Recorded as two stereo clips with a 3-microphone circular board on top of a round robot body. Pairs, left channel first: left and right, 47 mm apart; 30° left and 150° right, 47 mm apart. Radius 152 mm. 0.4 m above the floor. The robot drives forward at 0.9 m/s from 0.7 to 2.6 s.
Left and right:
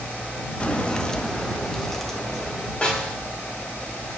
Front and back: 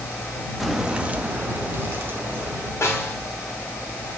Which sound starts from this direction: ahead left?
A snare drum, at 2.8 s.